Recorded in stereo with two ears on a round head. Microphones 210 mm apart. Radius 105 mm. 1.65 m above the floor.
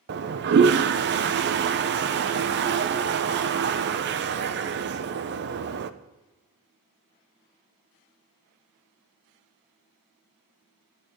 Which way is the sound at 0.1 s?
50° right (ahead or behind).